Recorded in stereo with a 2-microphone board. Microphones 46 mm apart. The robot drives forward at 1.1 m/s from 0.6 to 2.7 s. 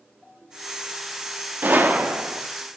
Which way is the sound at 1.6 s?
45° right (ahead or behind).